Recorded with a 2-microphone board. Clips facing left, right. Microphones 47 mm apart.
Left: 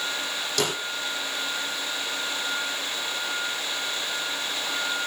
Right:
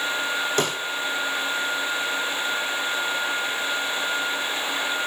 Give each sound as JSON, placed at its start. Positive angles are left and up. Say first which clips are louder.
{"t": 0.6, "sound": "a snare drum", "louder": "even", "side_deg": -30, "distance_m": 5.0}